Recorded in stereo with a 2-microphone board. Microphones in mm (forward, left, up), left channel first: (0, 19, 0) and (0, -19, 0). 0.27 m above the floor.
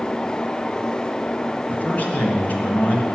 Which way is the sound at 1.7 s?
45° left (ahead or behind).